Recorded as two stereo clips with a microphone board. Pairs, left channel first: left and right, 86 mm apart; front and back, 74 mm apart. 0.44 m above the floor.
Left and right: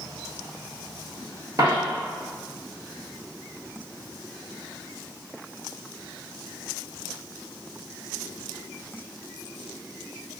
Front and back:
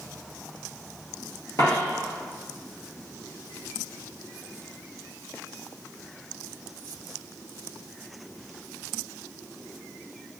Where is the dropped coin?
45° right, 1.4 m.